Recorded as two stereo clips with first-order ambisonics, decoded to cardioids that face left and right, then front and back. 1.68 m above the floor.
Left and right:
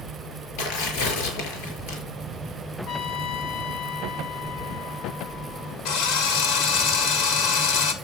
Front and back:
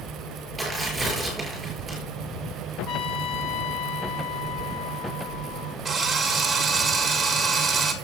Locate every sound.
0.6 s tearing paper: 105° left, 6 m
2.9 s a trumpet: 35° left, 0.8 m
5.8 s a drill: 105° left, 2 m